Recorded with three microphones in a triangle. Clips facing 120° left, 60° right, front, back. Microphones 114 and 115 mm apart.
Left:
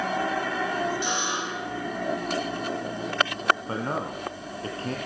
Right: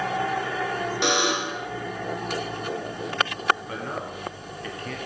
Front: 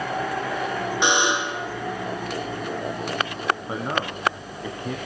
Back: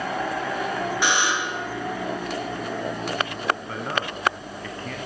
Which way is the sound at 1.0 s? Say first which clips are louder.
Right 5 dB, front 4 dB; 70° right.